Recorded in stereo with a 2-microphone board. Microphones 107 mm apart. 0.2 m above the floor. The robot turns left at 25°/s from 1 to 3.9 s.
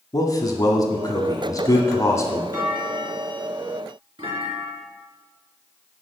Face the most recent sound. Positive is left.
turn(degrees=-65)